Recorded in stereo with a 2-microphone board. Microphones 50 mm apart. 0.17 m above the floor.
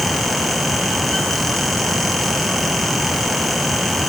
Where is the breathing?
I don't hear breathing.